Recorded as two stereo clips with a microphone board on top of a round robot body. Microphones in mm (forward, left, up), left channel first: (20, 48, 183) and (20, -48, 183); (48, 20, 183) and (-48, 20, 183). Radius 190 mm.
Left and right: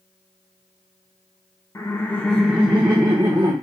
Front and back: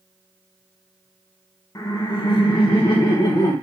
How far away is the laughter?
About 0.9 m.